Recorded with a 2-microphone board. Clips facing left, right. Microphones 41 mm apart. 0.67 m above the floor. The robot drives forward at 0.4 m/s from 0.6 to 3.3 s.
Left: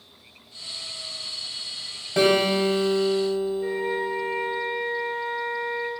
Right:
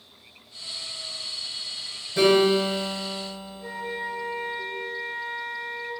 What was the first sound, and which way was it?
A guitar, 85° left.